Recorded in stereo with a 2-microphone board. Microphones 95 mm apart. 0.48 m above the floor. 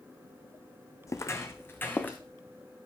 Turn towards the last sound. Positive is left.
turn(degrees=20)  # may be behind; listen again after turning